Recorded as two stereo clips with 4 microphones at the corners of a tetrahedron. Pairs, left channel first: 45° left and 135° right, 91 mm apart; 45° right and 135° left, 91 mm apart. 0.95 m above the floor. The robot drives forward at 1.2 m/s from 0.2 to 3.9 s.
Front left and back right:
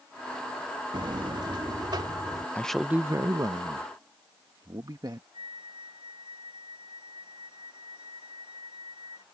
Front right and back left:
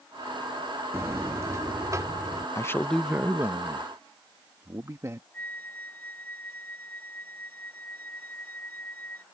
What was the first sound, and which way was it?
A buzzer, 165° right.